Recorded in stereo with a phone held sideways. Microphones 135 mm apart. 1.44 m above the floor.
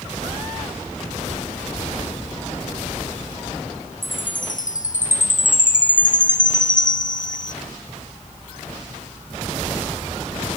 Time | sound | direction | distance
4.0 | a chime | 70° left (ahead or behind) | 1.0 m